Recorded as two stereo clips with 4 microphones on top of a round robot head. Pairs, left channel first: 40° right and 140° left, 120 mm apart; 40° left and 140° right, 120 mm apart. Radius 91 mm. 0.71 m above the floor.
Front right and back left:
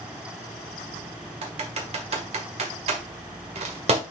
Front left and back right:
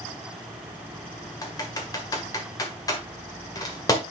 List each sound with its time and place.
1.4 s typing on a keyboard: 100° left, 1.6 m